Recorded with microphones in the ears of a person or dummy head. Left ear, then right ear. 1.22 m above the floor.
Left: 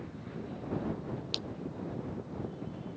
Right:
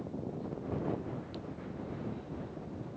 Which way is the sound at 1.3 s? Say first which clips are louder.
Left 9 dB; 70° left (ahead or behind).